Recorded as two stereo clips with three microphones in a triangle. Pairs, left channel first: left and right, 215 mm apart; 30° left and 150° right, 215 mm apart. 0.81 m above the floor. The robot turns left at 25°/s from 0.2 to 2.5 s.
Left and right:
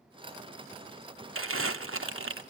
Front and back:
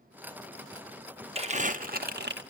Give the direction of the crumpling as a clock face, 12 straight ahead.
3 o'clock.